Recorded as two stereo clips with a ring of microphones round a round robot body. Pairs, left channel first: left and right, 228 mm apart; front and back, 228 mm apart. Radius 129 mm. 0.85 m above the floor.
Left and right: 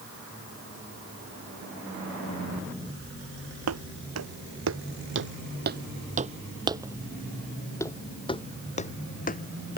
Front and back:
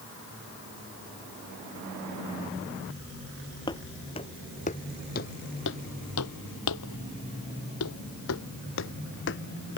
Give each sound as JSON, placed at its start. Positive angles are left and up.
{"t": 3.7, "sound": "footsteps", "azimuth_deg": -75}